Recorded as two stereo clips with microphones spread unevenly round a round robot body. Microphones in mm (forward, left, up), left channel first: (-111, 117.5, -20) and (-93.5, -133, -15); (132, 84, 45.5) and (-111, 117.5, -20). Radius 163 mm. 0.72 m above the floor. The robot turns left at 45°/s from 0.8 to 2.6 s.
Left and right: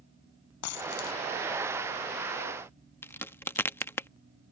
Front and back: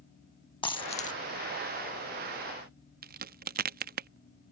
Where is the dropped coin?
60° left; by 1.2 s 40° left.